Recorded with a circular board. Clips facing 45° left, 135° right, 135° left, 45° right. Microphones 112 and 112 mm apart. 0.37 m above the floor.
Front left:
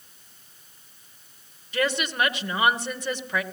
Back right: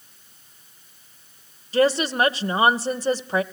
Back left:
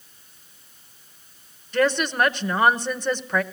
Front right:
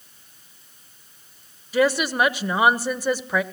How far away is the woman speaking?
About 1.1 m.